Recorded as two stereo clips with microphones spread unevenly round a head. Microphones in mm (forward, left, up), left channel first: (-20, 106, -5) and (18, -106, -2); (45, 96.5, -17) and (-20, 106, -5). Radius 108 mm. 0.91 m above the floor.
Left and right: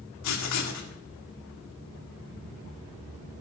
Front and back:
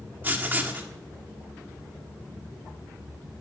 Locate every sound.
0.2 s writing: 105° left, 1.8 m